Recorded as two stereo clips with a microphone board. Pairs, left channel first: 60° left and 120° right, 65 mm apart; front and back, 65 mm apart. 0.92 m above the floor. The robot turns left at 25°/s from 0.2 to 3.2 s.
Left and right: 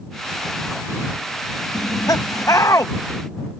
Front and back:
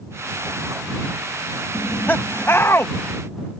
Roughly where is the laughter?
Ahead left.